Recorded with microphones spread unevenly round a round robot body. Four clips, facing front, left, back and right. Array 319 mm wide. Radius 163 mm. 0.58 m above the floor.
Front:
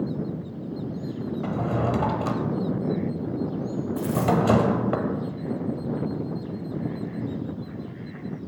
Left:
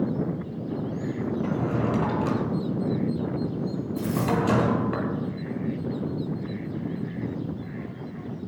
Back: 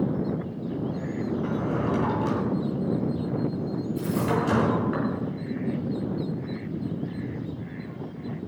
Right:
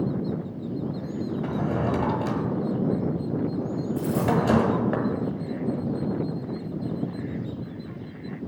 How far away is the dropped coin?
About 6 m.